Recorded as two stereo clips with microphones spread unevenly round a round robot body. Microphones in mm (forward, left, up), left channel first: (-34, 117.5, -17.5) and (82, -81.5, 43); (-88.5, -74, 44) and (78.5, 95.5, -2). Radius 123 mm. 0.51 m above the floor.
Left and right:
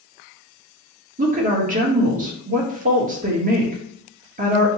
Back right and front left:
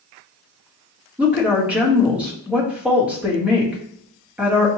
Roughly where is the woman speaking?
Ahead.